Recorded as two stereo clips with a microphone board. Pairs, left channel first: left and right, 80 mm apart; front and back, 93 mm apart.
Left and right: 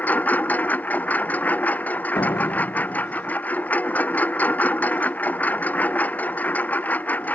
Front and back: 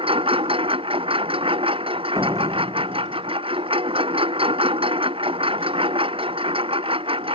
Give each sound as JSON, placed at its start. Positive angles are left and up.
{"t": 0.0, "sound": "a lawn mower", "azimuth_deg": 160}
{"t": 2.1, "sound": "a door slam", "azimuth_deg": 120}